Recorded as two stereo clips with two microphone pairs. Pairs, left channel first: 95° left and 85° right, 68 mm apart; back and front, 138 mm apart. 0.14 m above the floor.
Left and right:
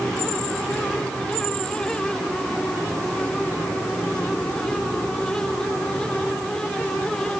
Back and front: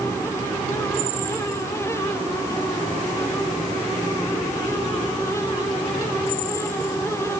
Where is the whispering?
No whispering in this recording.